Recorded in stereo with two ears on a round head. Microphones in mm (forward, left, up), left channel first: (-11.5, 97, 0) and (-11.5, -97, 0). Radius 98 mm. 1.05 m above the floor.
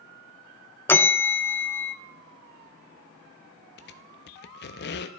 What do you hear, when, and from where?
0.9 s a bell: 10° left (ahead or behind), 0.5 m
3.8 s a squeak: 50° left (ahead or behind), 0.6 m